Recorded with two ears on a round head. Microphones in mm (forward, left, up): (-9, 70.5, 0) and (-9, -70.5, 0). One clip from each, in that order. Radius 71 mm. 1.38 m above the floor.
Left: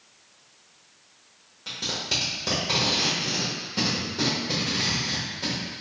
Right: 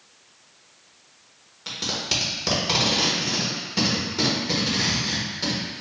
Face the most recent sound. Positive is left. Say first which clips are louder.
# right 2 dB
turn(degrees=-25)  # may be behind; listen again after turning